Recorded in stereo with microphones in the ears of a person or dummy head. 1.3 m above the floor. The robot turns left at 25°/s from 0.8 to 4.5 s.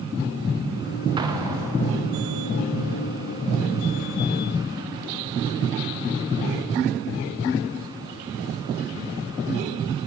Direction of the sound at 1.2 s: 20° right (ahead or behind).